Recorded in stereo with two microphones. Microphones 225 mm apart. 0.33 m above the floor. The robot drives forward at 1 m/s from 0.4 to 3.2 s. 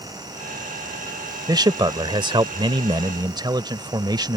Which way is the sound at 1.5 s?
20° right (ahead or behind).